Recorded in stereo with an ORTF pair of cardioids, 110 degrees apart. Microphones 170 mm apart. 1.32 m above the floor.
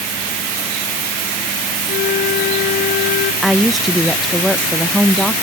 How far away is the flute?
About 0.8 m.